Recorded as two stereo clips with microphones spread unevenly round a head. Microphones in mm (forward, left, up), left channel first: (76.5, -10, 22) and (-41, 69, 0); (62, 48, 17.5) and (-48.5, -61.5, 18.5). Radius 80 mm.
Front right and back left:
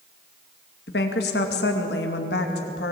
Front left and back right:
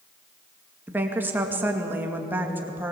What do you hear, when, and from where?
0.9 s a woman speaking: 55° right, 2.5 m